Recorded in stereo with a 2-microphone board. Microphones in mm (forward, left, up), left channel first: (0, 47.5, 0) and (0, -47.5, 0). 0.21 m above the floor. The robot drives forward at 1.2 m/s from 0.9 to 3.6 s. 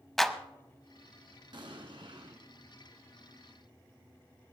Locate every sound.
0.2 s a clap: 5° left (ahead or behind), 0.8 m
1.5 s an explosion: 55° right (ahead or behind), 1.7 m